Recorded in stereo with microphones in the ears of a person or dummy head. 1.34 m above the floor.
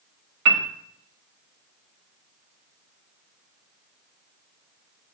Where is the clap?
No clap in this recording.